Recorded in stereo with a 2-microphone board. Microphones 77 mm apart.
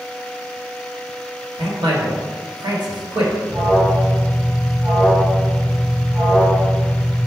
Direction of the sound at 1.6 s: 70° right (ahead or behind).